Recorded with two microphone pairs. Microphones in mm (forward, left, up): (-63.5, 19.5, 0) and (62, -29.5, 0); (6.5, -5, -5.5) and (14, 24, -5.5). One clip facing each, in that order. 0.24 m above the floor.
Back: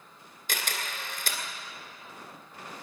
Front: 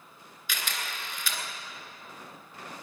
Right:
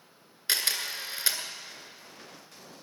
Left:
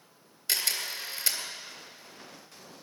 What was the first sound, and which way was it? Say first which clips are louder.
A camera shutter: back 1 dB, right 1 dB; 160° right.